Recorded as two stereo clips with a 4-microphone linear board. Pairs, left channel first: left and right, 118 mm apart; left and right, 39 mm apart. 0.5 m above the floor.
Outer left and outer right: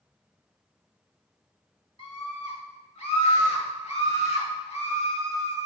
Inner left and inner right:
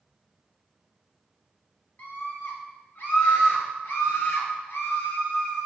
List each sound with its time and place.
2.0 s a scream: 50° left (ahead or behind), 2.5 m; by 5.7 s 65° left (ahead or behind), 3.5 m